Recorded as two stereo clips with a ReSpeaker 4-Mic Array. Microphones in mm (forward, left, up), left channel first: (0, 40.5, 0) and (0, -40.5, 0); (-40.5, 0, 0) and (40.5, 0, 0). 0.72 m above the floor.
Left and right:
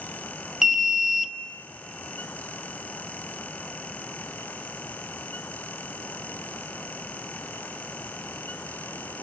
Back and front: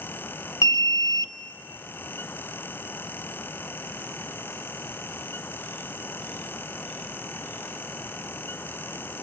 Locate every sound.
0.6 s an alarm: 170° right, 0.9 m